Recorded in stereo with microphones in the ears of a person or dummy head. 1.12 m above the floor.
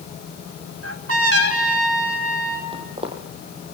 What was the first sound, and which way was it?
A trumpet, 75° right (ahead or behind).